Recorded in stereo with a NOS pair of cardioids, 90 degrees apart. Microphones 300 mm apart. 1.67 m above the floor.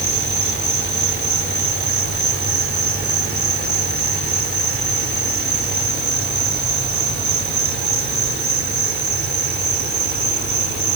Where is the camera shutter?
I don't hear a camera shutter.